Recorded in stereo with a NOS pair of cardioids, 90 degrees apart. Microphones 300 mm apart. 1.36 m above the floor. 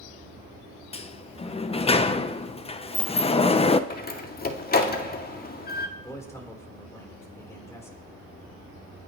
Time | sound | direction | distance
0.9 | a sliding door | 20° left | 0.9 m
3.9 | a door slam | 30° left | 2.0 m
6.0 | a man speaking | 10° left | 5 m